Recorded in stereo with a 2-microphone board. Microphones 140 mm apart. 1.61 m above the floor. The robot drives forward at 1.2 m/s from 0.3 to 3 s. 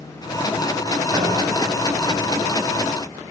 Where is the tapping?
25° right (ahead or behind), 1.8 m; by 1.3 s 30° right (ahead or behind), 1.7 m.